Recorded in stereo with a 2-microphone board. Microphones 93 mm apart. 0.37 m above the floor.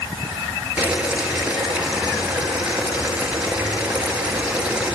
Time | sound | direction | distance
0.8 | boiling | 15° right (ahead or behind) | 5.5 m